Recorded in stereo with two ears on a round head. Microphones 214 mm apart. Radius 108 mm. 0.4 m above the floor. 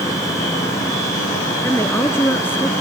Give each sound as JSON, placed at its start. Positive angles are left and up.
{"t": 1.6, "sound": "a woman speaking", "side_deg": 10}